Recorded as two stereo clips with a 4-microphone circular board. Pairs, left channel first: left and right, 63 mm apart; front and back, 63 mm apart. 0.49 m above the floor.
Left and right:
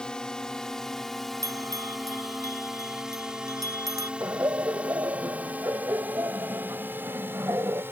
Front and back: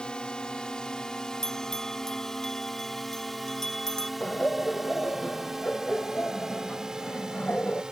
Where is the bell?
85° right.